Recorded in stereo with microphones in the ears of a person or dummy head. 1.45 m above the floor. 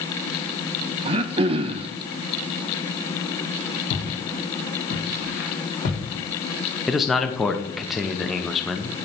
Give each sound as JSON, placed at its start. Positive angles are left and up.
{"t": 1.1, "sound": "throat clearing", "side_deg": -30, "distance_m": 0.5}
{"t": 3.9, "sound": "footsteps", "side_deg": 50, "distance_m": 2.0}
{"t": 6.9, "sound": "a man speaking", "side_deg": 0, "distance_m": 0.6}